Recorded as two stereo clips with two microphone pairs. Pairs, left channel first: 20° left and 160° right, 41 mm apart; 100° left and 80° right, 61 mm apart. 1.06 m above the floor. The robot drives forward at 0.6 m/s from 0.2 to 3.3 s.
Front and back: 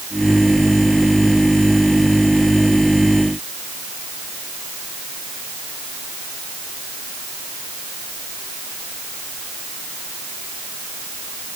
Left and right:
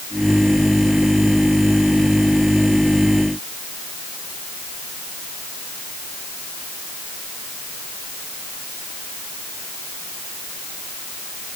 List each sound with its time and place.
Only background noise.